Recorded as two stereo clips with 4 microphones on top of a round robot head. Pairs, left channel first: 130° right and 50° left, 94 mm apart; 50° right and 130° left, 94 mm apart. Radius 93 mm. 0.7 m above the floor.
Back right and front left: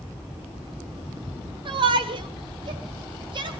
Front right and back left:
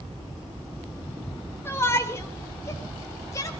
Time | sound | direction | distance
1.6 | a shout | 15° left | 2.5 m